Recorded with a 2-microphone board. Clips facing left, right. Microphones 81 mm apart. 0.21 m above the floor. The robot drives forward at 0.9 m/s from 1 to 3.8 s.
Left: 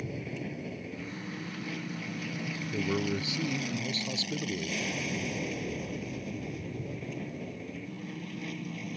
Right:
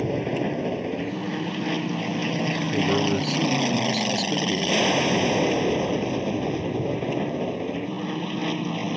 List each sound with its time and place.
0.0 s an aircraft: 70° right (ahead or behind)
2.7 s a man speaking: 30° right (ahead or behind); by 4.8 s 35° right (ahead or behind)